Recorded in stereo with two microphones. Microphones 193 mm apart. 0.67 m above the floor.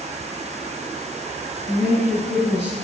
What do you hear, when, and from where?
1.7 s a woman speaking: 70° left (ahead or behind), 7 m